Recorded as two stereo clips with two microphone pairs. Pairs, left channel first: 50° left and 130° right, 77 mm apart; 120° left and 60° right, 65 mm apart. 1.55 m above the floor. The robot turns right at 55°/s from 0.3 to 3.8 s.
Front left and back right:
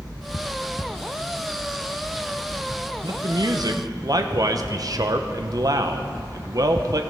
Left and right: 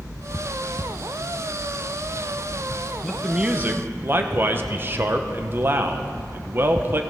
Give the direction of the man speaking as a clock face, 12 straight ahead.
5 o'clock.